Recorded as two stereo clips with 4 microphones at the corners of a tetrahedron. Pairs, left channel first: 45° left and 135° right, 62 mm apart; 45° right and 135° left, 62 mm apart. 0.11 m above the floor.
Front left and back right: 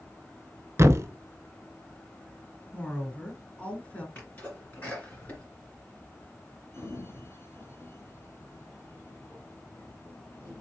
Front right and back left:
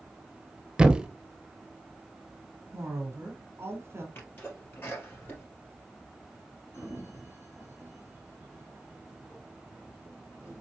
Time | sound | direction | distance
0.8 | a thud | 155° right | 0.6 m
2.7 | a woman speaking | 105° left | 1.5 m
4.2 | a sneeze | 10° right | 2.5 m
6.7 | a sliding door | 5° right | 3 m